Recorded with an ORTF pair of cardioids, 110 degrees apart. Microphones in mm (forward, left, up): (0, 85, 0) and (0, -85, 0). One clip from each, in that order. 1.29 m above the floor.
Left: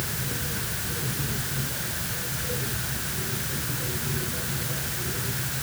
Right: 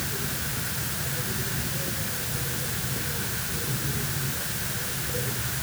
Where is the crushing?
No crushing in this recording.